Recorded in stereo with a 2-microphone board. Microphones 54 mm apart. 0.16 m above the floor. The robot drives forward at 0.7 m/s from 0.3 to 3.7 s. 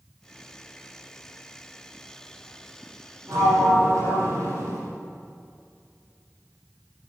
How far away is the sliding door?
About 5.5 m.